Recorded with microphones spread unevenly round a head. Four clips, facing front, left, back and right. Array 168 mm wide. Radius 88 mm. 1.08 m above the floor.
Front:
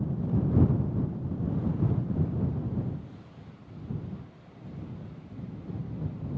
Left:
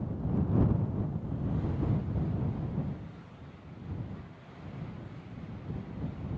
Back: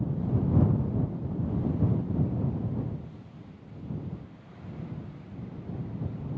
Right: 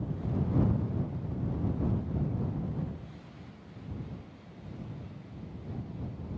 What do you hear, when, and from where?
Only background noise.